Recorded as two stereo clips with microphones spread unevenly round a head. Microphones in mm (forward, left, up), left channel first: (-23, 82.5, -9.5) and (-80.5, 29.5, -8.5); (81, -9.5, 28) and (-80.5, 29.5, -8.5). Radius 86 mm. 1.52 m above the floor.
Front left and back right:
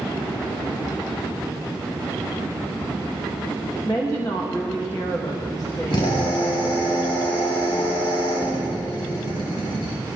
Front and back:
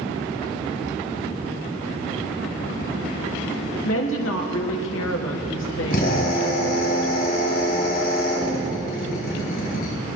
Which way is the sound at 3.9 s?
30° right.